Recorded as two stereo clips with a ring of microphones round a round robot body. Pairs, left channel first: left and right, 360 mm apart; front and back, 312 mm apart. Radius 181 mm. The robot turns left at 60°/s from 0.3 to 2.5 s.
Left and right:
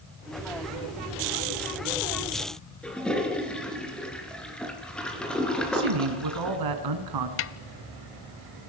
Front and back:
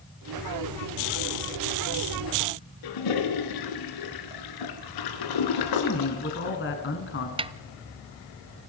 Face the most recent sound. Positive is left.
turn(degrees=115)